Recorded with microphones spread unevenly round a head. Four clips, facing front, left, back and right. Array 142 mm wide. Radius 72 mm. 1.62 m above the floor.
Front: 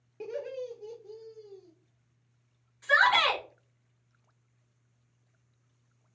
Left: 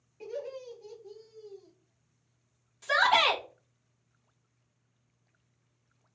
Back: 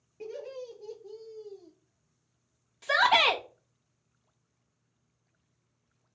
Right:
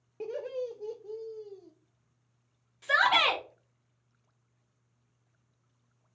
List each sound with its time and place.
0.2 s laughter: 65° right, 0.9 m; by 1.7 s 150° right, 0.9 m
2.8 s a shout: 165° right, 1.1 m